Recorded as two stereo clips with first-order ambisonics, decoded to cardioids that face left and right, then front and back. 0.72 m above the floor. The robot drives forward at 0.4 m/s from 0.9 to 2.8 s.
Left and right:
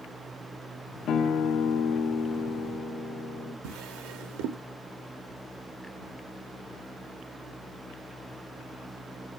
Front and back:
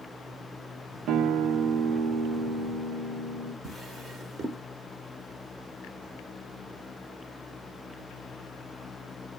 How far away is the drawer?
About 1.0 m.